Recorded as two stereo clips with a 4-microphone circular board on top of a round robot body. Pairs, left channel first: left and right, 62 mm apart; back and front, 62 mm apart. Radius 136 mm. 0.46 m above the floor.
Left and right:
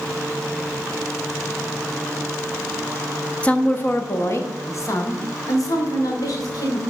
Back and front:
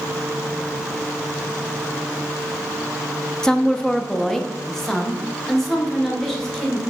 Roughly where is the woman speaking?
Behind left.